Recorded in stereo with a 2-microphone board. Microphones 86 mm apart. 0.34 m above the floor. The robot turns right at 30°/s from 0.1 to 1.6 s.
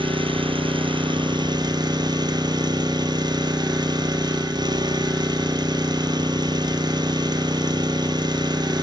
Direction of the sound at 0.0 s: 100° right.